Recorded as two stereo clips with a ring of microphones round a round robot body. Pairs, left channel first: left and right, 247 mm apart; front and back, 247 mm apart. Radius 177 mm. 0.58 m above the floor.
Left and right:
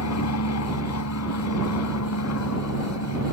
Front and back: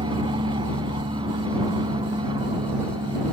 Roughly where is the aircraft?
Left.